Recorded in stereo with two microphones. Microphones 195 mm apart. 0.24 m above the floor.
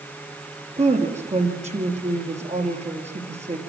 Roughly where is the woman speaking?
Right.